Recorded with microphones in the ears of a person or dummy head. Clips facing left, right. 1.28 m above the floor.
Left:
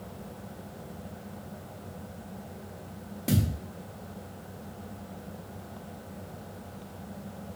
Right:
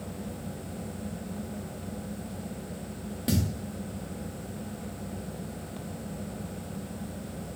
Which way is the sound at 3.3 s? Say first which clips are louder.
Left 1 dB; 10° right (ahead or behind).